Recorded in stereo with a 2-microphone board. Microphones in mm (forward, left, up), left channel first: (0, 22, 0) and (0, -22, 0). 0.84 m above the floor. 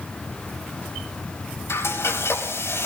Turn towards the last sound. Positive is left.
turn(degrees=80)